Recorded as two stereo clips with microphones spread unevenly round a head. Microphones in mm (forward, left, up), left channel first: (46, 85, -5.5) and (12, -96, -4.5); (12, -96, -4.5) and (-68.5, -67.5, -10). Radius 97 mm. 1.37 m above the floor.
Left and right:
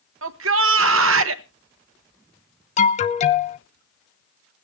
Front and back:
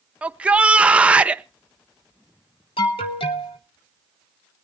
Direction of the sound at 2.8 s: 25° left.